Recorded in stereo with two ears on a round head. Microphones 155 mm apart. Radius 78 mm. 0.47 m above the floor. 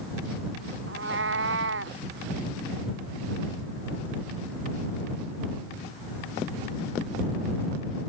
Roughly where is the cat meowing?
Right.